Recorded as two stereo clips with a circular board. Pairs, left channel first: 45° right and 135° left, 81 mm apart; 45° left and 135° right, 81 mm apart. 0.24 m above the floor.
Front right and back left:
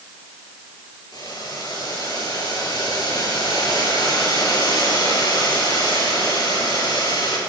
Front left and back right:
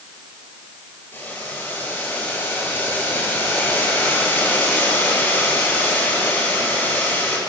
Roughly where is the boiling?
Ahead.